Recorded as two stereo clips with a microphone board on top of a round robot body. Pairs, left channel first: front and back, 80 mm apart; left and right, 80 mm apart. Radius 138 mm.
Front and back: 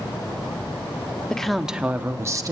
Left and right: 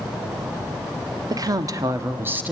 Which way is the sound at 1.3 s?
80° right.